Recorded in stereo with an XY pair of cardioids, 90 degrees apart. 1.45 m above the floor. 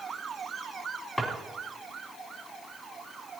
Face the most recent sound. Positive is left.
turn(degrees=5)